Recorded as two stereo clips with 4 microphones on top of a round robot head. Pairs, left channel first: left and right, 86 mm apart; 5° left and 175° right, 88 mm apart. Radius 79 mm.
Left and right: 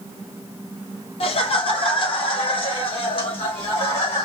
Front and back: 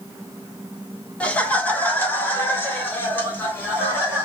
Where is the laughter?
80° left, 1.0 m; by 4.2 s 70° left, 3 m.